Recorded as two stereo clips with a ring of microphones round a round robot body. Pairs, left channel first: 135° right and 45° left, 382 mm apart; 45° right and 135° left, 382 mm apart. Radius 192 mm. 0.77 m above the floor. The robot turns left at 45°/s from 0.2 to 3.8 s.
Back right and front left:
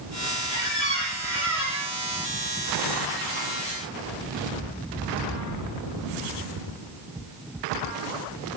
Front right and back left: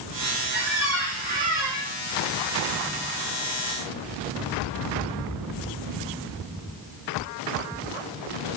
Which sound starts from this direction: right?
A squeak, at 0.5 s.